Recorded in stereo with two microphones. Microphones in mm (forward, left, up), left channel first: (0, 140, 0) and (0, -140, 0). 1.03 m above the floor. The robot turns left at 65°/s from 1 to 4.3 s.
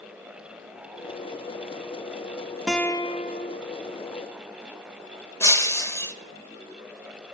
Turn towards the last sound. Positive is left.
turn(degrees=10)  # may be behind; listen again after turning